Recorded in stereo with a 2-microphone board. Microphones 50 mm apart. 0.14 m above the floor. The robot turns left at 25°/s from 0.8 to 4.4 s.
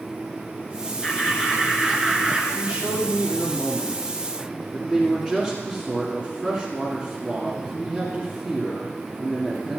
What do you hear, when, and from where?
1.0 s laughter: 20° left, 2 m; by 2.5 s 15° right, 2 m
2.5 s a man speaking: 120° right, 1.8 m; by 9.8 s 165° right, 1.8 m